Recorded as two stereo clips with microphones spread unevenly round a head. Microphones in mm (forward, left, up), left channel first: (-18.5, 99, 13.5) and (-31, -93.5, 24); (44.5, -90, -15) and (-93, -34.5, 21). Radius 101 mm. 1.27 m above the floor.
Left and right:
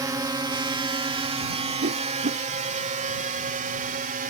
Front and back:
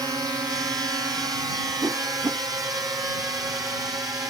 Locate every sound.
0.0 s a drone: 140° right; by 4.3 s 130° right
1.8 s a whoosh: 135° right